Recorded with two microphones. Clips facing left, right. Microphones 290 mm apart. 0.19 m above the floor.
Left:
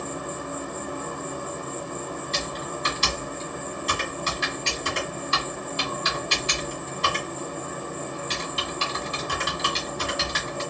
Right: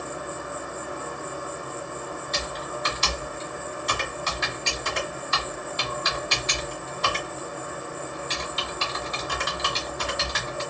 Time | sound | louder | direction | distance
0.0 | an insect | left 2 dB | 45° left (ahead or behind) | 0.8 m
2.3 | typing on a keyboard | left 1 dB | 40° left (ahead or behind) | 1.5 m